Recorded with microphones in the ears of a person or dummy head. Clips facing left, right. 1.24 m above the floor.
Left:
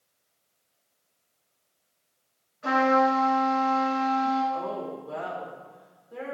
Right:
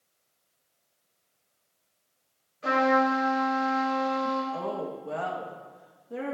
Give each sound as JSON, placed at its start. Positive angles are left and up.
{"t": 2.6, "sound": "a trumpet", "side_deg": -45, "distance_m": 3.5}
{"t": 4.5, "sound": "a woman speaking", "side_deg": -60, "distance_m": 1.1}